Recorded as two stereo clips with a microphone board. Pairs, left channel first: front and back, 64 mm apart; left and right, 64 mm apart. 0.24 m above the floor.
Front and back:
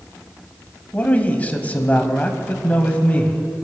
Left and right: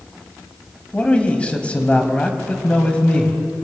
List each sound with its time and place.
0.9 s a man speaking: 35° left, 1.1 m